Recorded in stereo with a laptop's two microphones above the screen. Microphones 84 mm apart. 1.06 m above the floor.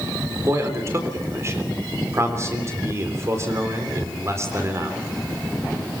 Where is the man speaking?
35° right (ahead or behind), 3.5 m.